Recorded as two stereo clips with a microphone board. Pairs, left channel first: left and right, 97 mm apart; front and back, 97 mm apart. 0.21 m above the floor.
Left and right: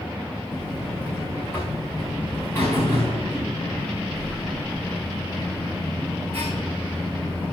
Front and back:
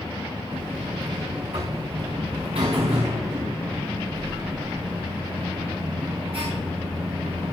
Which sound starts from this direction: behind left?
A buzzer, at 0.5 s.